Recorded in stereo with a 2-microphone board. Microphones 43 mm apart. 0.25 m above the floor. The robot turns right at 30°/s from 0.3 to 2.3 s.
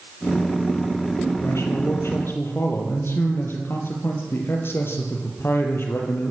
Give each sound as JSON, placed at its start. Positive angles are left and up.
{"t": 1.4, "sound": "a man speaking", "side_deg": 80, "distance_m": 5.0}